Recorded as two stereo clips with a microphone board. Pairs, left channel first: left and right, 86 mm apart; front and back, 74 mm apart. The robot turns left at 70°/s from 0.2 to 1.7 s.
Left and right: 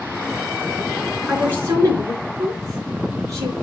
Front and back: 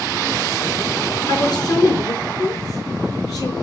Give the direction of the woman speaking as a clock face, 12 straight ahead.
12 o'clock.